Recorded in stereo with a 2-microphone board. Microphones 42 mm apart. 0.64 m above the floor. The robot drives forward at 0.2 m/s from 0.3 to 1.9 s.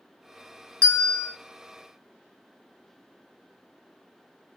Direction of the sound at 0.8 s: 25° left (ahead or behind).